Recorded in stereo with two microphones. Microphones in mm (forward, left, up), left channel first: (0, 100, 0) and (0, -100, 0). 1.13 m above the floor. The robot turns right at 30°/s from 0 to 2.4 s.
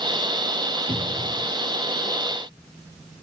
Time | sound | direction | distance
0.9 | a cupboard door | 55° right (ahead or behind) | 2.5 m